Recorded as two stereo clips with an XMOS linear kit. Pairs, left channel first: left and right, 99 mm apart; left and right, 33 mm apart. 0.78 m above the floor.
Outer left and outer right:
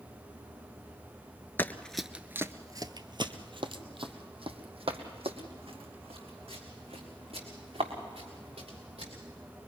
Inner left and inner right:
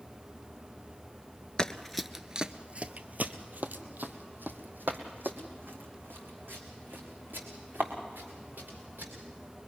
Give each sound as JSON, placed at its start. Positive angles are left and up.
{"t": 1.6, "sound": "running footsteps", "side_deg": 20, "distance_m": 0.7}